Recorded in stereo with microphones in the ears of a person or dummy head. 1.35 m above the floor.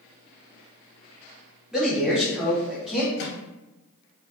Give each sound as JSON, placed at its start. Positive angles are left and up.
{"t": 1.7, "sound": "a man speaking", "side_deg": -5, "distance_m": 1.0}
{"t": 3.2, "sound": "a microwave", "side_deg": 60, "distance_m": 0.9}